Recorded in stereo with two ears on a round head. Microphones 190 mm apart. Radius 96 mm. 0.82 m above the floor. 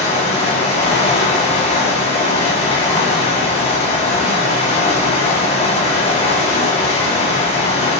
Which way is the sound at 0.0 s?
30° left (ahead or behind).